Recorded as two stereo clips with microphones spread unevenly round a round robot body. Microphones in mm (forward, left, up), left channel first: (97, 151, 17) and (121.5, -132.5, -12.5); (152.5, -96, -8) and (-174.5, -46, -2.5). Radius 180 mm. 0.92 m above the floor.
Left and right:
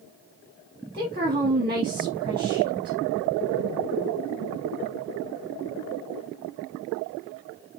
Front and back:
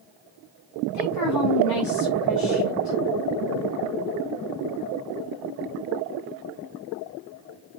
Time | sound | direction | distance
0.9 | a woman speaking | 35° right | 1.6 m